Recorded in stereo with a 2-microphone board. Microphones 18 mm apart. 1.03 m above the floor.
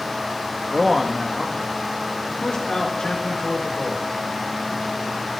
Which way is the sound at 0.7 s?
25° right (ahead or behind).